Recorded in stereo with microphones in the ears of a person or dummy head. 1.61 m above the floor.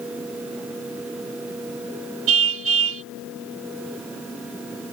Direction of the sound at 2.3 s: 80° right.